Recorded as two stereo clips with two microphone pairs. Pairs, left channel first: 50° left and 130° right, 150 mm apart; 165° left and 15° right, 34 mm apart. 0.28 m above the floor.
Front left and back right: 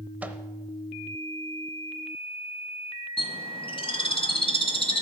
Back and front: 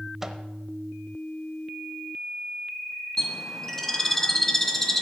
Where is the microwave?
75° right, 0.7 m.